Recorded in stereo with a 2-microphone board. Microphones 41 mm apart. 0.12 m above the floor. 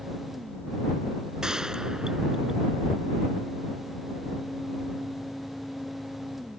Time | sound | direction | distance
1.4 | a gunshot | 15° right (ahead or behind) | ?